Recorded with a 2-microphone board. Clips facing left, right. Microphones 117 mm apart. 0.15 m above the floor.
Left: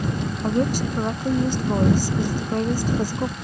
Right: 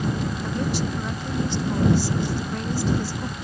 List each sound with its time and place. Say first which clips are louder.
0.4 s a woman speaking: left 7 dB; 45° left (ahead or behind)